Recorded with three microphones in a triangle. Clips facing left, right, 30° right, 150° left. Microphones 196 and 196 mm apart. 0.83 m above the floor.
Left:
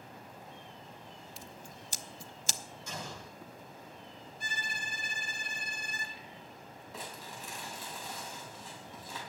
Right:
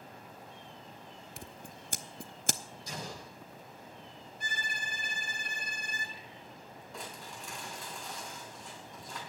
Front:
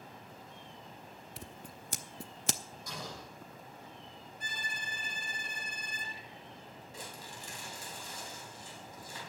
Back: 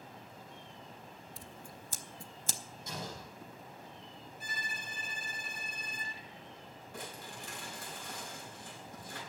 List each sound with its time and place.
1.4 s scissors: 55° right, 0.7 m
2.9 s an explosion: 145° right, 7 m
4.4 s a violin: 125° right, 2 m
6.9 s crumpling: 175° left, 5 m